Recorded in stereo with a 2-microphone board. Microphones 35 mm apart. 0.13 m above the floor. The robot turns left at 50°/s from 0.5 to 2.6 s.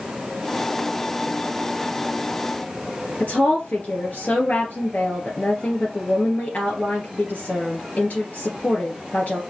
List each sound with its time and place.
3.2 s a woman speaking: 55° left (ahead or behind), 2.5 m